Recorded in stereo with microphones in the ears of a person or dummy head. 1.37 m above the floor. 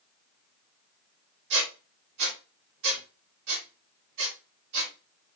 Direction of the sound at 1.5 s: 65° right (ahead or behind).